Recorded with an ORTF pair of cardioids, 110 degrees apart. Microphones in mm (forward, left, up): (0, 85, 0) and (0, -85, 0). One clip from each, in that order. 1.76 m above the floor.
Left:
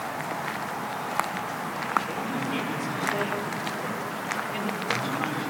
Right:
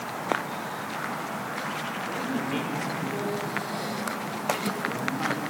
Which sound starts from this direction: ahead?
A man speaking, at 2.1 s.